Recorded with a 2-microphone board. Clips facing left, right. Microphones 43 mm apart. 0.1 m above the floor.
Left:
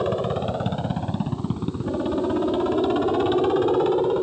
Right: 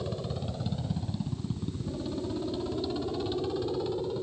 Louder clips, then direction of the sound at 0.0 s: Left 12 dB; 55° left (ahead or behind).